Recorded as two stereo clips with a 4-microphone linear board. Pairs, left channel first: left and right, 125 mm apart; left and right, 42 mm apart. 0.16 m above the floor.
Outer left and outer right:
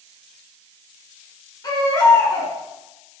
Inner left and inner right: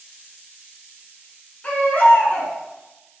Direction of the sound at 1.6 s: 30° left (ahead or behind).